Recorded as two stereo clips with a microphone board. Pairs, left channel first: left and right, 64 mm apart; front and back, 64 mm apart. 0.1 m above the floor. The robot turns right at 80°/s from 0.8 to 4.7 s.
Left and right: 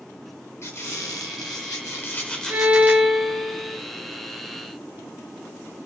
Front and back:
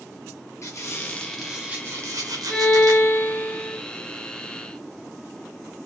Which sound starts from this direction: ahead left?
A squeak, at 0.6 s.